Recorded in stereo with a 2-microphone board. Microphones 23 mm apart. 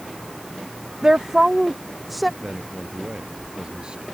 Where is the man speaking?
35° right (ahead or behind).